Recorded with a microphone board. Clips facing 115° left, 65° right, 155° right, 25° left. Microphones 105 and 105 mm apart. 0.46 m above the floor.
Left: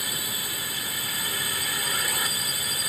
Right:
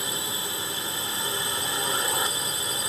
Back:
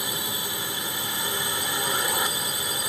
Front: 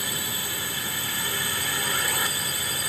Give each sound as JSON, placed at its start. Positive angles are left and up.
{"t": 0.0, "sound": "a drone", "azimuth_deg": -105}